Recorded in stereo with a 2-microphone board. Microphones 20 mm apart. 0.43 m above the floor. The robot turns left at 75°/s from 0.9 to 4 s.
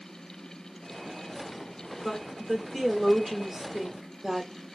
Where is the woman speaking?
20° left (ahead or behind), 1.2 m; by 4.5 s 25° right (ahead or behind), 1.2 m.